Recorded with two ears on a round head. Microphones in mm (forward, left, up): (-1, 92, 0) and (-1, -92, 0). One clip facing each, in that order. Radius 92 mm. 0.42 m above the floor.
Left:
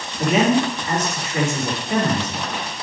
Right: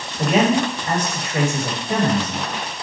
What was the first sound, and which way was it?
A man speaking, 45° right (ahead or behind).